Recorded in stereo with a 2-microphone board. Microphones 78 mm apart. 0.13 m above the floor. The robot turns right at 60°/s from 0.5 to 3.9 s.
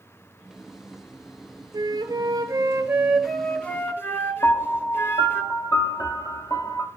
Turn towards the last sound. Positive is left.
turn(degrees=55)  # may be behind; listen again after turning